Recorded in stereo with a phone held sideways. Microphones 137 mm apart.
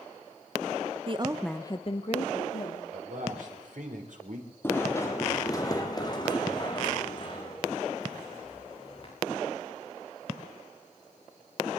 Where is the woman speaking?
40° right (ahead or behind), 0.8 m; by 2.8 s 55° left (ahead or behind), 2 m.